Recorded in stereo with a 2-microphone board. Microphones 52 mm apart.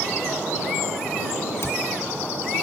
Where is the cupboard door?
55° left (ahead or behind).